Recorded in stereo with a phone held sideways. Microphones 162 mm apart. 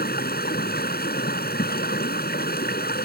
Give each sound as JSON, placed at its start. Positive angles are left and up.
{"t": 0.0, "sound": "running water", "side_deg": 75}